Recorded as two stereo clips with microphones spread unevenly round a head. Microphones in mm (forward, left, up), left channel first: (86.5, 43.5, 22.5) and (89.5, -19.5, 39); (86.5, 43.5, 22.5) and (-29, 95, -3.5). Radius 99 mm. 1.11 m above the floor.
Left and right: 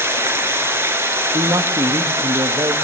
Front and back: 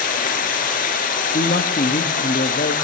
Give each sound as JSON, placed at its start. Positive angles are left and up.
{"t": 0.0, "sound": "running water", "azimuth_deg": -40, "distance_m": 4.5}
{"t": 1.3, "sound": "a man speaking", "azimuth_deg": -55, "distance_m": 1.4}